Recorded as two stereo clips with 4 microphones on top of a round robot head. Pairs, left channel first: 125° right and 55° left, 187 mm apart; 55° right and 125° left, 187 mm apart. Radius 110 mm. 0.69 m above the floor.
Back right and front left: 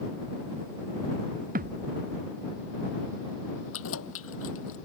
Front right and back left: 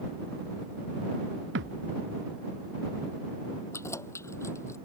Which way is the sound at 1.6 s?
100° left.